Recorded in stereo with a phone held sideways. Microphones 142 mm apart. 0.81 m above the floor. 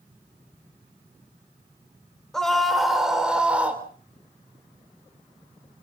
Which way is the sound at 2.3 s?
5° left (ahead or behind).